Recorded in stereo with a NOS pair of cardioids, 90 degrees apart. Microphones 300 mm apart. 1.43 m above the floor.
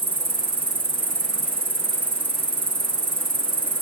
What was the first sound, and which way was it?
An insect, 15° right.